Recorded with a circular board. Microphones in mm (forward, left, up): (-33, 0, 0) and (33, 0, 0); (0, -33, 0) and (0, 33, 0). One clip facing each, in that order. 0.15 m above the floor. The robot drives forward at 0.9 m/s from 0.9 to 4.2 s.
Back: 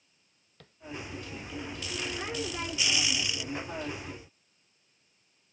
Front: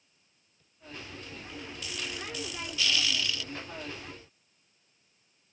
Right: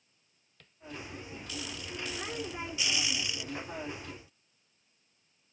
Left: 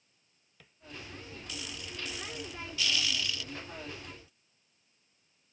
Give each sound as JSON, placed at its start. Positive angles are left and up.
{"t": 0.6, "sound": "tapping", "azimuth_deg": 175}